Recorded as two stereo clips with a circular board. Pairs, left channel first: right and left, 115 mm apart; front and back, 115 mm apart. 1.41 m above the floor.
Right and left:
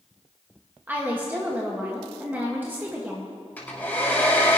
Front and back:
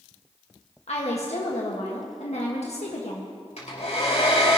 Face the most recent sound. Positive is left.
turn(degrees=-15)